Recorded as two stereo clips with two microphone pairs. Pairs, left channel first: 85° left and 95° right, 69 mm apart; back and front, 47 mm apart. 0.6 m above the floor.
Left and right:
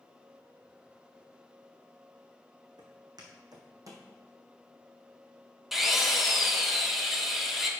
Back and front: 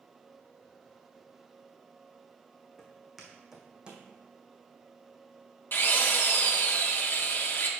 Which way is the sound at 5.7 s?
Straight behind.